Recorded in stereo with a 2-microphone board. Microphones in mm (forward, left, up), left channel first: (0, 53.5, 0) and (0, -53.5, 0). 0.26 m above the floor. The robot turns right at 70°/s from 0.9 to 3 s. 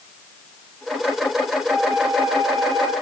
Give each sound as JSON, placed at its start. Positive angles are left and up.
{"t": 1.7, "sound": "a flute", "azimuth_deg": -150, "distance_m": 2.0}